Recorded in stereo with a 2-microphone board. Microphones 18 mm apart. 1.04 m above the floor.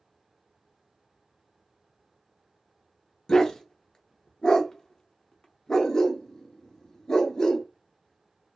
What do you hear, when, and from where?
3.3 s a dog barking: 35° left (ahead or behind), 0.6 m